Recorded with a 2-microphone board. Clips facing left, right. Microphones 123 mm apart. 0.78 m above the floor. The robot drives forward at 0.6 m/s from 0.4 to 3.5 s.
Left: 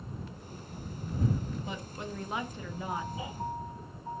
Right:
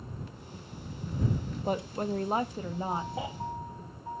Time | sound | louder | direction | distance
1.6 | a woman speaking | right 9 dB | 50° right (ahead or behind) | 0.8 m
3.2 | a baby crying | right 5 dB | 85° right | 3 m